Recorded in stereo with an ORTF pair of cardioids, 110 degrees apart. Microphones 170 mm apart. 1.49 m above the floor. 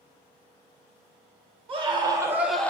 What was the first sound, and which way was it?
A scream, 35° right.